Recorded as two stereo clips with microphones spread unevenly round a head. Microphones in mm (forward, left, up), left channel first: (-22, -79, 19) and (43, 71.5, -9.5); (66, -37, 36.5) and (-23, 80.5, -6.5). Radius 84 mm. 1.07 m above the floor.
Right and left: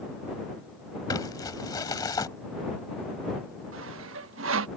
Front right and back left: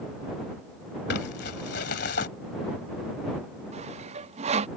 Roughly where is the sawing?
Left.